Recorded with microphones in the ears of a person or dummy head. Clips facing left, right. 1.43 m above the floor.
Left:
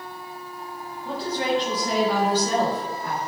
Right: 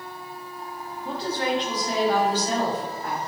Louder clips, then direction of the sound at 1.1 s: Left 1 dB; 10° right (ahead or behind).